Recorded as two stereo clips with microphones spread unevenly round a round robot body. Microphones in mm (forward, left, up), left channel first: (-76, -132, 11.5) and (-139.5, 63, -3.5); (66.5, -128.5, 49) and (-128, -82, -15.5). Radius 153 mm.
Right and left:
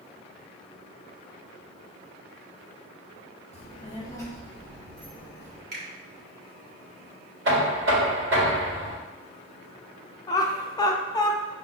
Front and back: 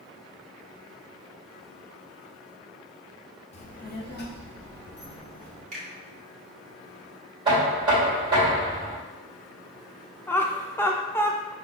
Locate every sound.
3.5 s a child speaking: 75° right, 0.7 m; by 5.6 s 30° left, 1.4 m
5.7 s a finger snap: 125° left, 1.2 m
7.5 s knocking: 105° left, 1.7 m
10.3 s laughter: 125° right, 0.6 m